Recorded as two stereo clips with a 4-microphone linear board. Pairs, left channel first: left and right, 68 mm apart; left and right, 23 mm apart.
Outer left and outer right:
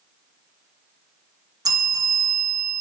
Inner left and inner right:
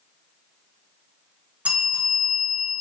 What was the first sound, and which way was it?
A bell, 65° right (ahead or behind).